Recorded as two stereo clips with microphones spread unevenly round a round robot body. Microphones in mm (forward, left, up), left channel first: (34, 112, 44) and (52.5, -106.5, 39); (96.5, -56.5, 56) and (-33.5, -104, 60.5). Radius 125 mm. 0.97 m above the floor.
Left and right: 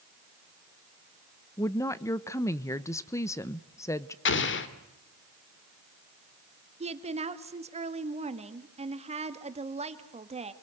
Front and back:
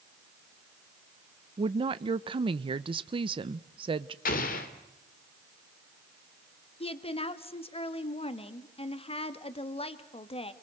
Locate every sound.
1.6 s a woman speaking: 165° left, 0.6 m
4.2 s an explosion: 60° left, 1.9 m
6.8 s a woman speaking: 25° right, 1.8 m